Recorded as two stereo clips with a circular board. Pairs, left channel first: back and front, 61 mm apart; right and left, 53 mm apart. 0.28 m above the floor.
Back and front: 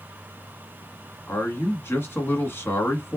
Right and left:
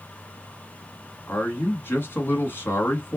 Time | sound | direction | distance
1.3 | a man speaking | 135° right | 2 m